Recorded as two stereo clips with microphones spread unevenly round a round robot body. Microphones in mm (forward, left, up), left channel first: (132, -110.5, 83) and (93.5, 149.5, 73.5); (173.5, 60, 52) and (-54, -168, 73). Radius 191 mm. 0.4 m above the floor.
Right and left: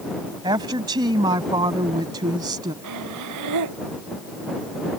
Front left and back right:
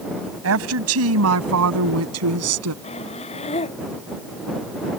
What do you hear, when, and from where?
0.4 s a woman speaking: 175° left
2.8 s breathing: 120° left